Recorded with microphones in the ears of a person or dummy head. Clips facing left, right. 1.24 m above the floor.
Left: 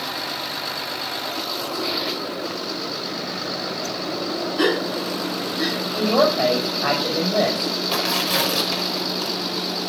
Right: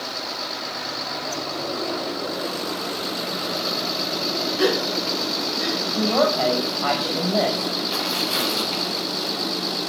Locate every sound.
4.6 s a gasp: 60° left (ahead or behind), 5 m
5.9 s a woman speaking: 20° left (ahead or behind), 6.5 m
7.9 s tearing paper: 75° left (ahead or behind), 4.5 m